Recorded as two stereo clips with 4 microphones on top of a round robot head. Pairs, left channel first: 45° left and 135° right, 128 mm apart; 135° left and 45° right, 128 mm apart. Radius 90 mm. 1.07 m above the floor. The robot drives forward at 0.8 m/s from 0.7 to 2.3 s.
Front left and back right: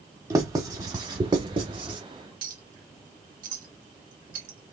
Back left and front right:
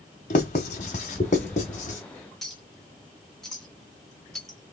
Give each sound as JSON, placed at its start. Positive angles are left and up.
{"t": 0.3, "sound": "writing", "azimuth_deg": 165, "distance_m": 1.2}
{"t": 2.4, "sound": "a clink", "azimuth_deg": -140, "distance_m": 1.9}